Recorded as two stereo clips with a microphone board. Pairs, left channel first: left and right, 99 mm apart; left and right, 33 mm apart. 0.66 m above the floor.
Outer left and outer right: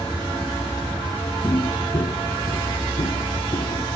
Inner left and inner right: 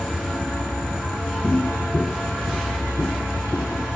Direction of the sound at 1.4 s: 40° left (ahead or behind).